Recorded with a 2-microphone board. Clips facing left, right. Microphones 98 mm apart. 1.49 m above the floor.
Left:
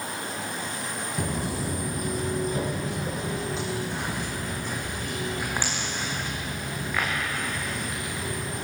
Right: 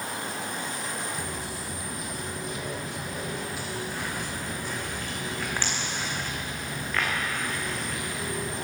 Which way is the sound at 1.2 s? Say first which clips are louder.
Left 6 dB; 55° left (ahead or behind).